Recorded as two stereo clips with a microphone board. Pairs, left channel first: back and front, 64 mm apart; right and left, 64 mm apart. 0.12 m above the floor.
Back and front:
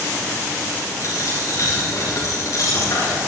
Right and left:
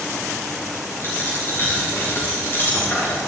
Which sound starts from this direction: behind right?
A dropped coin, at 1.0 s.